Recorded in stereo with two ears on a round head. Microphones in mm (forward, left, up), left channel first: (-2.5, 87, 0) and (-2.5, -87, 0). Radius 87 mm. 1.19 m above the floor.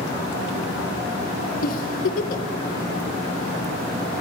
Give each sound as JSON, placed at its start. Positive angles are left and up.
{"t": 1.6, "sound": "a giggle", "side_deg": 45, "distance_m": 0.7}